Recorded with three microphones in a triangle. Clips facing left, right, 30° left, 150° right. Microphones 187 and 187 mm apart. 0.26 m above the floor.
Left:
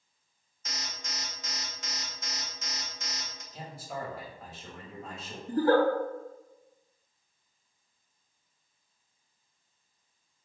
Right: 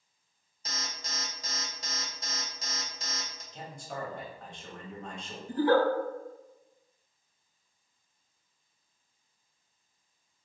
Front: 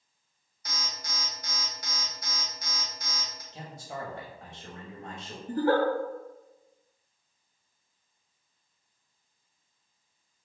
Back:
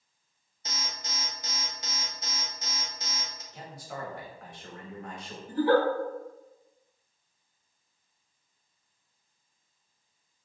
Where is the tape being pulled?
I don't hear tape being pulled.